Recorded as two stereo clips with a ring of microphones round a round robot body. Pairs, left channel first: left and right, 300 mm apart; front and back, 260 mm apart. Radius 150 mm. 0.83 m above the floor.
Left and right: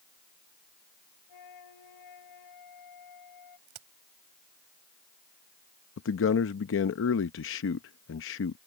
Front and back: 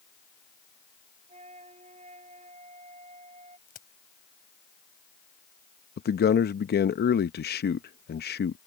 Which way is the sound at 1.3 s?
115° left.